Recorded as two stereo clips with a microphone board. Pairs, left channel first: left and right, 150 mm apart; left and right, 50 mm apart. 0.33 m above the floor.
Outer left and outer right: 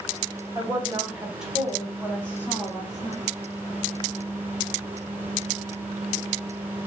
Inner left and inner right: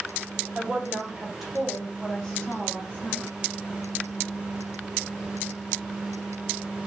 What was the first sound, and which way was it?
A woman speaking, 15° right (ahead or behind).